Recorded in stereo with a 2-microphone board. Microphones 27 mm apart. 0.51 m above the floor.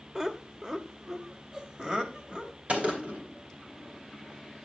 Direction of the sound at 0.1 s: 20° right (ahead or behind).